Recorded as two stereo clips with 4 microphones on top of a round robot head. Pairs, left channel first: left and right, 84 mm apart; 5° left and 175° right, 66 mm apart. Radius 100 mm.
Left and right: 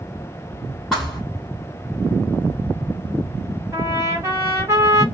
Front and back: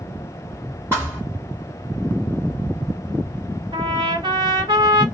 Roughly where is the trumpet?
Behind right.